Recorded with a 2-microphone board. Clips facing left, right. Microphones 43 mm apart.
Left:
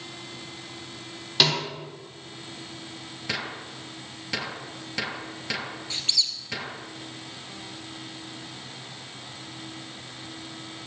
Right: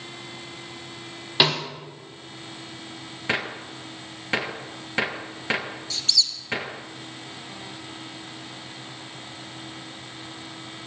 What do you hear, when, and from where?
1.4 s a snare drum: 20° right (ahead or behind), 4 m
3.3 s a gunshot: 35° right (ahead or behind), 1.0 m
5.9 s a squeak: 30° left (ahead or behind), 1.2 m